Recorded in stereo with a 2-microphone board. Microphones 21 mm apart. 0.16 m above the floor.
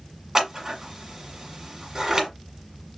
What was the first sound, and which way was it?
Scissors, 25° right (ahead or behind).